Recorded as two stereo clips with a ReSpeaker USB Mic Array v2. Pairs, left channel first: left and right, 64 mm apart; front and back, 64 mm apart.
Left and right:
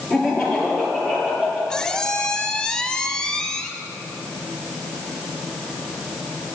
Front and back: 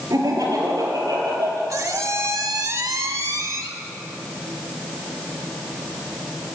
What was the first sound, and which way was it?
Laughter, 175° right.